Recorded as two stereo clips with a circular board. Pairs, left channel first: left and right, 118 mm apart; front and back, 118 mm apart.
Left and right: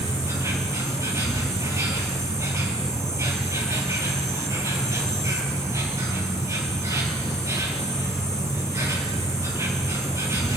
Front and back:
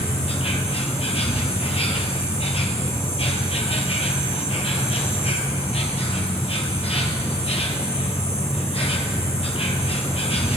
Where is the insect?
25° right, 2 m.